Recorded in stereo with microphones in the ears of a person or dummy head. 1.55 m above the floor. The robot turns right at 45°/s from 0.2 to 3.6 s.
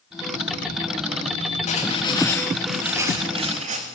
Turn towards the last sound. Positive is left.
turn(degrees=-135)